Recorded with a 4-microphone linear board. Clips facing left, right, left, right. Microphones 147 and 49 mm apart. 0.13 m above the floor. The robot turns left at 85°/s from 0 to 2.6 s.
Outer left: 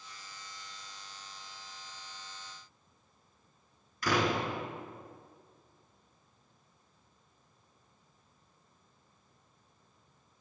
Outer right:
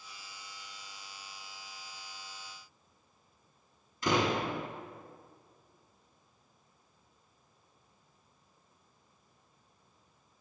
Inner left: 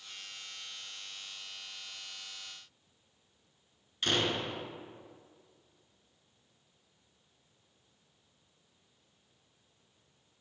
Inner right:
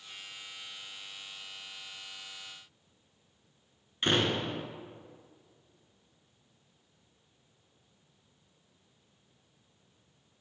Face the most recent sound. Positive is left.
turn(degrees=-25)  # may be behind; listen again after turning